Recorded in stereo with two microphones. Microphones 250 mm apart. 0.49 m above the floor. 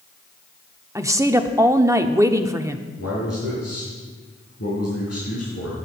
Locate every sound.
0.9 s a woman speaking: 10° right (ahead or behind), 0.7 m
3.0 s a man speaking: 80° left, 4.5 m